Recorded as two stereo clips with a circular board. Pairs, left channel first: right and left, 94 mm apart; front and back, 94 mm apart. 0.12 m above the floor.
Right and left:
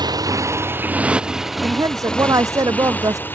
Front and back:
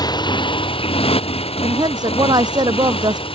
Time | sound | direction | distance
0.0 | a motorcycle | 45° left | ?
1.6 | a woman speaking | 140° left | ?